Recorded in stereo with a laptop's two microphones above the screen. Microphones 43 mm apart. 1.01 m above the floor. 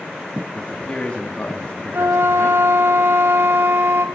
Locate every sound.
0.6 s a man speaking: 25° left (ahead or behind), 2.5 m
1.9 s a flute: 70° right (ahead or behind), 1.7 m